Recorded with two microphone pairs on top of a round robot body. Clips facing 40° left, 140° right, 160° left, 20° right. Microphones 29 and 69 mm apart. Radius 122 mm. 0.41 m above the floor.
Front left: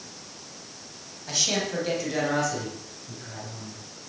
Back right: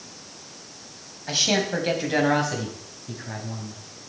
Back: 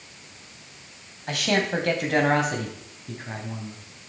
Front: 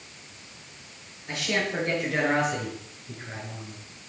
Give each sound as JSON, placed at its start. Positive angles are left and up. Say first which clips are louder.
{"t": 1.3, "sound": "a man speaking", "louder": "back right 4 dB, back 4 dB", "azimuth_deg": 160, "distance_m": 2.5}